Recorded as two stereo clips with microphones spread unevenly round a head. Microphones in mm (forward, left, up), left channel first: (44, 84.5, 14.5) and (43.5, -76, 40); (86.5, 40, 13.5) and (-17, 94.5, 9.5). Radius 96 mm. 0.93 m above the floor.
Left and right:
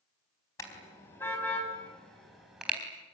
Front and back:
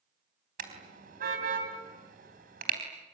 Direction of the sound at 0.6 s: 165° left.